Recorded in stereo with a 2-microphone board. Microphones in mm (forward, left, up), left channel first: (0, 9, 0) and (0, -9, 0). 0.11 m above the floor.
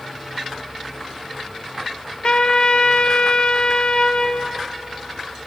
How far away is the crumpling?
I don't hear crumpling.